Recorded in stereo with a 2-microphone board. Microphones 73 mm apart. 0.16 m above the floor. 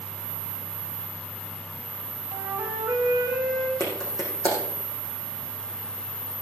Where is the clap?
60° right (ahead or behind), 5 m.